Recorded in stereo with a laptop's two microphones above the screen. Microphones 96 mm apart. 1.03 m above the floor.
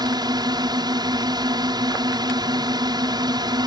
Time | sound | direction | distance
0.0 | a drone | 45° right (ahead or behind) | ?